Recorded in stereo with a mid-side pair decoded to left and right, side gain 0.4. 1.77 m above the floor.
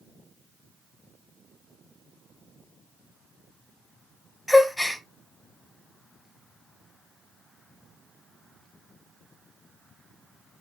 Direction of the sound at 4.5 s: 10° left.